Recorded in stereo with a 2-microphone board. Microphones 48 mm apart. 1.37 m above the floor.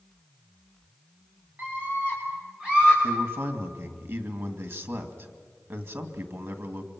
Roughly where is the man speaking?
Right.